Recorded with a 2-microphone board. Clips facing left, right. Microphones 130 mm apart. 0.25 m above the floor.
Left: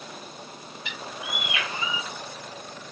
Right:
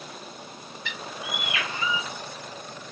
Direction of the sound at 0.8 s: 20° left (ahead or behind).